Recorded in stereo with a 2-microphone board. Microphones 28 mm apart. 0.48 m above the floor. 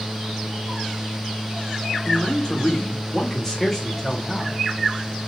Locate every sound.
2.0 s a man speaking: 45° left (ahead or behind), 1.3 m; by 4.5 s centre (ahead or behind), 1.9 m